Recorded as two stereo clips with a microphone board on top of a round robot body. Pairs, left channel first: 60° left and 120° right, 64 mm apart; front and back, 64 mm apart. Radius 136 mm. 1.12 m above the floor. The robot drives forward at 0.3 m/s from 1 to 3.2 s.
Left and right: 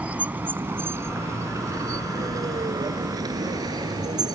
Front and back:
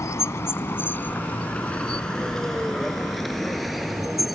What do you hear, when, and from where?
0.0 s a vehicle: 45° right; by 4.4 s 95° right